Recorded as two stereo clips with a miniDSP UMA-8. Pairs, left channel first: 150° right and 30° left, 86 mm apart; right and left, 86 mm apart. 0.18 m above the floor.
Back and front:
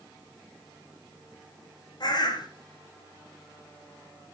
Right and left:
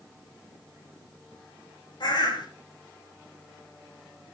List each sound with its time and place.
2.0 s a bird: 120° right, 2.5 m